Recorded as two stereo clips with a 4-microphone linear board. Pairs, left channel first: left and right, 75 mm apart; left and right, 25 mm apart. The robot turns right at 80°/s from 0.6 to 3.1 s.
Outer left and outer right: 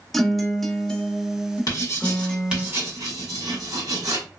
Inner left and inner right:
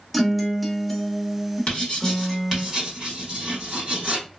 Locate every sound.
0.1 s a guitar: 5° left (ahead or behind), 0.5 m; by 2.7 s centre (ahead or behind), 0.5 m
1.7 s writing: 55° left (ahead or behind), 1.7 m; by 4.2 s 60° right (ahead or behind), 1.7 m